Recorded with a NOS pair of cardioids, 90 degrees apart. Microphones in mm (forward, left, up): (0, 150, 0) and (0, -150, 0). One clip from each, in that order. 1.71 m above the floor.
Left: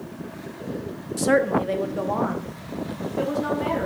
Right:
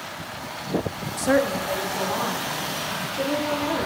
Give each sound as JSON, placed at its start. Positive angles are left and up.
{"t": 1.2, "sound": "a woman speaking", "azimuth_deg": 5, "distance_m": 0.7}